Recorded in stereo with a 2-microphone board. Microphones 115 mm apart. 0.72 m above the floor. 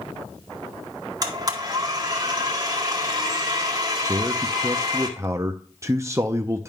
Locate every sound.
1.2 s a blender: 35° right (ahead or behind), 1.7 m
4.1 s a man speaking: 25° right (ahead or behind), 0.6 m